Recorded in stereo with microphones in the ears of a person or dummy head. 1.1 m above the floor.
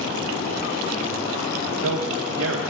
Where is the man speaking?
75° right (ahead or behind), 0.7 m.